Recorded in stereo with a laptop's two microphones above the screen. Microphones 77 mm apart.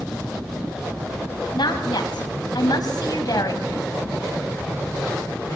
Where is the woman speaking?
75° left (ahead or behind), 6 m; by 3.6 s 55° left (ahead or behind), 6 m.